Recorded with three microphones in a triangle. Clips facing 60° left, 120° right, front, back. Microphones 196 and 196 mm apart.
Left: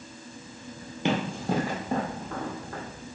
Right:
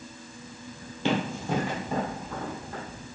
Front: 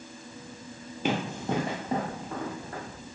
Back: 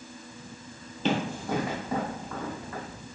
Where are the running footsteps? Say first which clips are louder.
Even, back 1 dB; 50° left, 1.1 m; by 2.8 s 45° left, 2.5 m.